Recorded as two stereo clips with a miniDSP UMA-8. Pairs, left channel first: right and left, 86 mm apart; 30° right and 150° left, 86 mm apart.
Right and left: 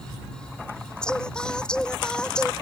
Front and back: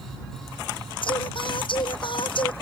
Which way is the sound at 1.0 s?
10° right.